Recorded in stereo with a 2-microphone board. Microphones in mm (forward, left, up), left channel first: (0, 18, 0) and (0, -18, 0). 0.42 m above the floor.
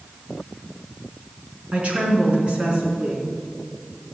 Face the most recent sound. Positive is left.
turn(degrees=-30)  # may be behind; listen again after turning